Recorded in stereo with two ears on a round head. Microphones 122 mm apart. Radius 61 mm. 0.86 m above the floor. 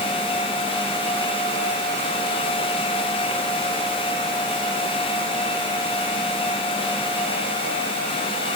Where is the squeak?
I don't hear a squeak.